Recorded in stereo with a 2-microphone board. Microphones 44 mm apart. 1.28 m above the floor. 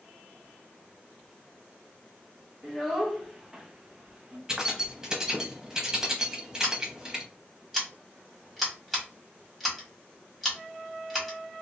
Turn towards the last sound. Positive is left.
turn(degrees=0)  # may be behind; listen again after turning